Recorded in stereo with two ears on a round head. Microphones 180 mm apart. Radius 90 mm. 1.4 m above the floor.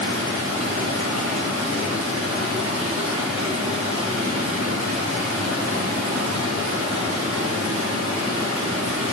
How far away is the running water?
About 3.5 m.